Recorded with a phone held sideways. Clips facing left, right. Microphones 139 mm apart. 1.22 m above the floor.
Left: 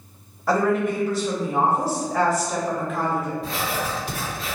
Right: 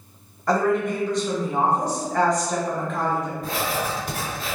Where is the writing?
45° right (ahead or behind), 1.3 m.